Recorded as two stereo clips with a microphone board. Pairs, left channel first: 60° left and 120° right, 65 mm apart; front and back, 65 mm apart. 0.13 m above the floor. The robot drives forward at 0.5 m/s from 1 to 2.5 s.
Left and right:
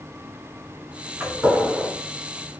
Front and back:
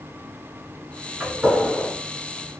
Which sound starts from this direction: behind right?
A gunshot, at 1.2 s.